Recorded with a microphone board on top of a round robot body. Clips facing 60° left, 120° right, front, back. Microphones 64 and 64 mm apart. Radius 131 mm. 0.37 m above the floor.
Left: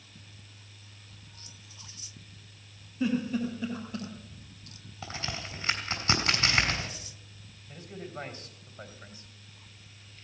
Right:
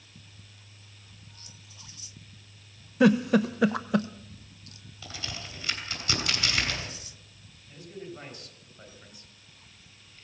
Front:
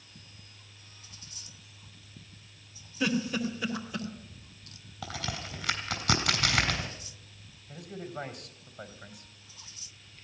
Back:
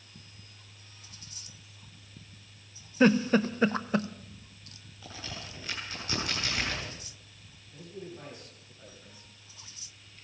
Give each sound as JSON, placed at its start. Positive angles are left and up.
{"t": 3.0, "sound": "a giggle", "azimuth_deg": -130, "distance_m": 0.8}
{"t": 5.0, "sound": "a crack", "azimuth_deg": 10, "distance_m": 3.0}
{"t": 7.7, "sound": "a man speaking", "azimuth_deg": 5, "distance_m": 3.0}